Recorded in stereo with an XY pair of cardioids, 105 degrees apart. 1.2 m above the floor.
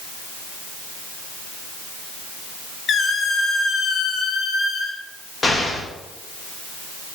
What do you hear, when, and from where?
2.9 s a squeak: 50° left, 0.8 m
5.4 s an explosion: 30° left, 1.7 m